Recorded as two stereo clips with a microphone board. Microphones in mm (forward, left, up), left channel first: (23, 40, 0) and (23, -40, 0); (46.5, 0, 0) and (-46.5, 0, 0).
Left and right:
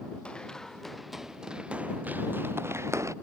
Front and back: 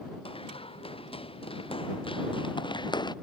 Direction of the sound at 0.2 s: 10° left.